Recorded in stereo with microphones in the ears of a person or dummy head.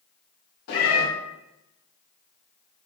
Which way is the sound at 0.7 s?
65° left (ahead or behind).